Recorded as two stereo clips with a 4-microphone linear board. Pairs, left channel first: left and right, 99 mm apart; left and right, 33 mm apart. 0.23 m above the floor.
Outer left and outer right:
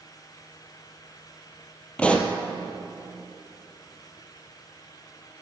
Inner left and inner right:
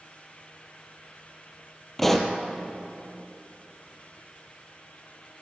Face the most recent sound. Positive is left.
turn(degrees=10)  # may be behind; listen again after turning